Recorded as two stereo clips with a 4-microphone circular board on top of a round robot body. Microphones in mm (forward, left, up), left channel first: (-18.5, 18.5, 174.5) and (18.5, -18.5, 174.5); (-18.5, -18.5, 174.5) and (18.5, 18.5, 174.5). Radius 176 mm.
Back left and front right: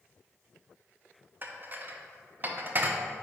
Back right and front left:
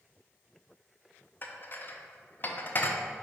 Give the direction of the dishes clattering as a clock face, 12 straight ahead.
3 o'clock.